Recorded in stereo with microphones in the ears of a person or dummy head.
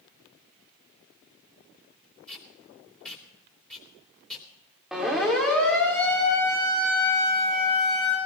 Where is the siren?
Centre (ahead or behind), 3 m; by 8.2 s 30° left (ahead or behind), 4 m.